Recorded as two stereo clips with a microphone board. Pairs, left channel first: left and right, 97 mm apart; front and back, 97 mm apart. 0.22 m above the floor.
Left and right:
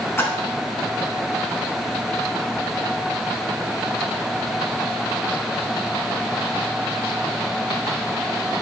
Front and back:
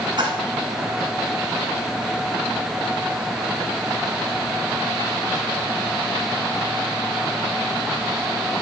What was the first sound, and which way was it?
A splash, 150° left.